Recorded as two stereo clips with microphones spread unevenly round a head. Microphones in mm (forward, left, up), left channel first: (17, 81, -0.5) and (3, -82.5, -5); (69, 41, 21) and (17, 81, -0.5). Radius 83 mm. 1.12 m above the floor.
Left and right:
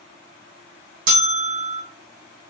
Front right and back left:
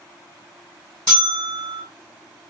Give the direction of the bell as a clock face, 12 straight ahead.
4 o'clock.